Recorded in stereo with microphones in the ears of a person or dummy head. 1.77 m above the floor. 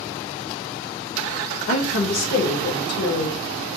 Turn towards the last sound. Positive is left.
turn(degrees=45)  # may be behind; listen again after turning